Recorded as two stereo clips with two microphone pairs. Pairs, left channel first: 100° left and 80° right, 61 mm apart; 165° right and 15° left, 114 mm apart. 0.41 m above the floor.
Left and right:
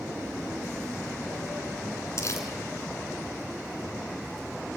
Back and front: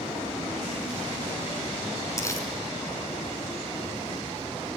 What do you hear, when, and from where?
2.2 s crumpling: 135° left, 2.5 m